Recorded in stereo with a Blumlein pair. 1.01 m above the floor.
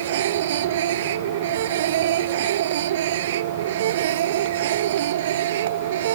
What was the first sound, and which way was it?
A machine running, 60° right.